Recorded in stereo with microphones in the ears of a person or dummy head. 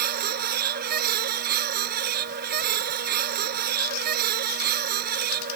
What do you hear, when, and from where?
0.0 s a machine running: 45° right (ahead or behind)